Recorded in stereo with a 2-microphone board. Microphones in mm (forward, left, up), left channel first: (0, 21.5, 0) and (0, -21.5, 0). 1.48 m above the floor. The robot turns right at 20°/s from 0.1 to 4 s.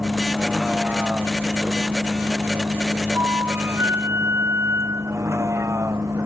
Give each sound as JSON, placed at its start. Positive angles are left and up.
{"t": 0.0, "sound": "a vehicle", "azimuth_deg": -165}
{"t": 3.1, "sound": "a flute", "side_deg": -65}